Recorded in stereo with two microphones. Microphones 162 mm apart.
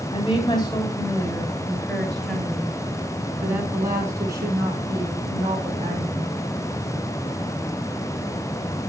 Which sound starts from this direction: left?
A woman speaking, at 0.1 s.